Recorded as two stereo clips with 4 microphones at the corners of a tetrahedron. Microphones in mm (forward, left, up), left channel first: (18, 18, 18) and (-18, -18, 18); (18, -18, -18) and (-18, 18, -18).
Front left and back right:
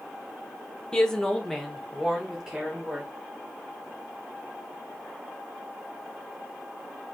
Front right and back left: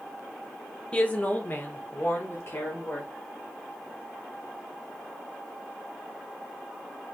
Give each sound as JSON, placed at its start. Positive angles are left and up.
{"t": 0.9, "sound": "a woman speaking", "azimuth_deg": -10, "distance_m": 0.7}